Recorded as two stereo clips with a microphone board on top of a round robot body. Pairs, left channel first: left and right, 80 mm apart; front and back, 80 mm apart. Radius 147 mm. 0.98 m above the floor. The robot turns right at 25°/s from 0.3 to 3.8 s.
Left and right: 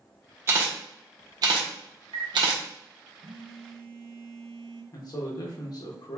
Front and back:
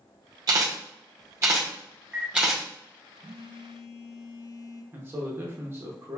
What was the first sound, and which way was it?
A camera shutter, 150° right.